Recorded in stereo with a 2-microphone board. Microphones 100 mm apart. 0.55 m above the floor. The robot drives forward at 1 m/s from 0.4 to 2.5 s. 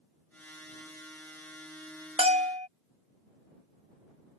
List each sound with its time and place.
2.2 s a bell: 70° right (ahead or behind)